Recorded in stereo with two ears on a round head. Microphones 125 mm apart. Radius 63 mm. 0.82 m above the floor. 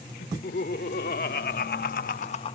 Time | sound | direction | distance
0.2 | laughter | 65° left (ahead or behind) | ?